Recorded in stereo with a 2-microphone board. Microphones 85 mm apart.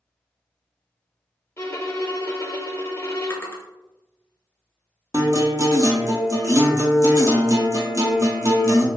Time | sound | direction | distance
1.6 | a violin | 30° left (ahead or behind) | 0.5 m
3.3 | a drawer | 25° left (ahead or behind) | 0.6 m
5.1 | a guitar | 40° right (ahead or behind) | 0.6 m